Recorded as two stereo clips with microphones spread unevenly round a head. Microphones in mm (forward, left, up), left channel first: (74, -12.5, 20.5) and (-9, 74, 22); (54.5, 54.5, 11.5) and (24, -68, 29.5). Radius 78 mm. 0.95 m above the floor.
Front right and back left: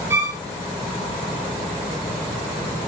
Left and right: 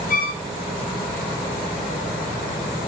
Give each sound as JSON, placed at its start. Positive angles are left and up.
{"t": 0.1, "sound": "a violin", "azimuth_deg": 65, "distance_m": 2.5}